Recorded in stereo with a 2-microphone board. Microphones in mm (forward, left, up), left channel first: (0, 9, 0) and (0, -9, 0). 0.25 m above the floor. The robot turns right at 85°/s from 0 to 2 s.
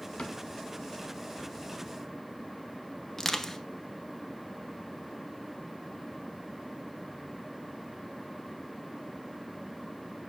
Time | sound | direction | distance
0.2 | a cupboard door | 60° left (ahead or behind) | 1.2 m
3.2 | crushing | 25° left (ahead or behind) | 1.0 m